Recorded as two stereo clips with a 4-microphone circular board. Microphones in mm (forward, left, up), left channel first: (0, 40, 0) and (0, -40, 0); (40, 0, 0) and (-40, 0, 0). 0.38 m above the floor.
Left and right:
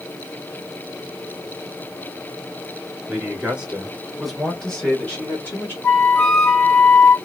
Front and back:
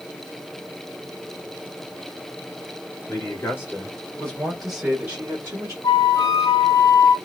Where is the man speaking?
25° right, 1.4 m; by 5.7 s 140° left, 1.3 m.